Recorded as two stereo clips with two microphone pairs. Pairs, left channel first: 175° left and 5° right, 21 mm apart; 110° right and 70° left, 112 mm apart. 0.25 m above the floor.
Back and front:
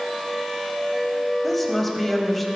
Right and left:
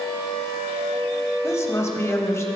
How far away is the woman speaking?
About 1.3 m.